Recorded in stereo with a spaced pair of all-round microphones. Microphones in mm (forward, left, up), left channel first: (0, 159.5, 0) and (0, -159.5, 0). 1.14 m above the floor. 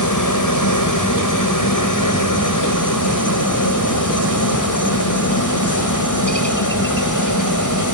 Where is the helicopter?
70° left (ahead or behind).